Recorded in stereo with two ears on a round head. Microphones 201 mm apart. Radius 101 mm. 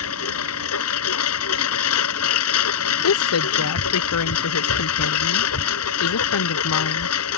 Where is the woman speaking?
75° left (ahead or behind).